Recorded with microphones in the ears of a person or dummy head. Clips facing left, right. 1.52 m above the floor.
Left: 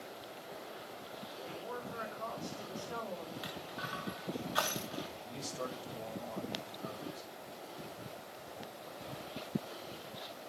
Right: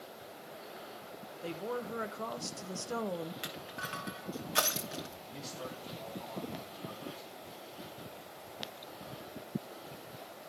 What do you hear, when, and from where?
1.4 s a woman speaking: 45° right (ahead or behind), 1.0 m
3.4 s crushing: 35° right (ahead or behind), 1.4 m
5.2 s a man speaking: 75° left (ahead or behind), 6 m